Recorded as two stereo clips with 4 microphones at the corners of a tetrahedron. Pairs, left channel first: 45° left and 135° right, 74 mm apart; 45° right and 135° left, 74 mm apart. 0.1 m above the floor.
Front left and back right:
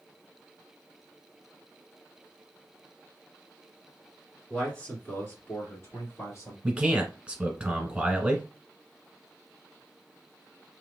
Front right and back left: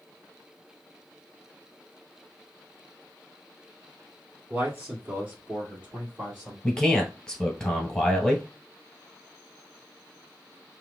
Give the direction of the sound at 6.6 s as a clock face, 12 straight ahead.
3 o'clock.